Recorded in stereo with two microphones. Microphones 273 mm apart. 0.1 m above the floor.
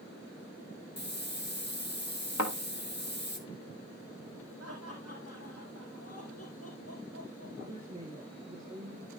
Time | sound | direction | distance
1.0 | a hiss | 40° left (ahead or behind) | 1.2 m
2.4 | a thud | 85° left | 1.9 m
4.6 | laughter | 60° left (ahead or behind) | 4 m
7.6 | a woman speaking | 25° right (ahead or behind) | 4 m